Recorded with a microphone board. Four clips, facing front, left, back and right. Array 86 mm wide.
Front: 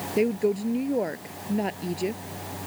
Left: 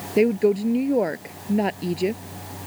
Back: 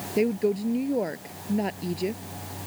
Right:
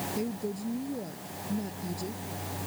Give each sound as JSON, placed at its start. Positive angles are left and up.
{"t": 0.2, "sound": "a woman speaking", "azimuth_deg": 85}